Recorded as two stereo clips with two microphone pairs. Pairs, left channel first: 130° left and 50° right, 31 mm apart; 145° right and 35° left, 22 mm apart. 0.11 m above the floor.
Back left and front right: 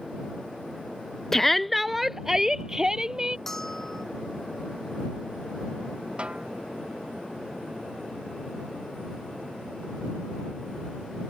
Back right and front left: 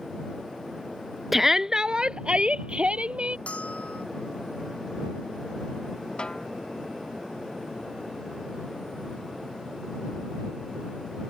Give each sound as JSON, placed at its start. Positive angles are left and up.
{"t": 1.3, "sound": "a shout", "azimuth_deg": 90}
{"t": 3.5, "sound": "a bell", "azimuth_deg": -150}
{"t": 6.2, "sound": "a snare drum", "azimuth_deg": -100}